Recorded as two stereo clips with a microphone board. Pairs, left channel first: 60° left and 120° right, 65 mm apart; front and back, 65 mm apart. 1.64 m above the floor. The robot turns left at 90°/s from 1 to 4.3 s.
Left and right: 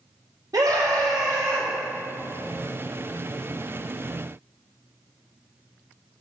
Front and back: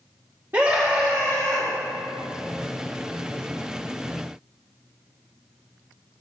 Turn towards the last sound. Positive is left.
turn(degrees=-65)